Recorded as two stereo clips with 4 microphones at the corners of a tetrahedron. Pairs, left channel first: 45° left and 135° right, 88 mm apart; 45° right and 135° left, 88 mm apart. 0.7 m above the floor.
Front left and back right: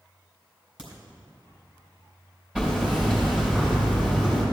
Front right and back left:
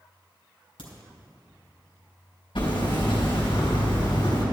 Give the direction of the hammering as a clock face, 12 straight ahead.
2 o'clock.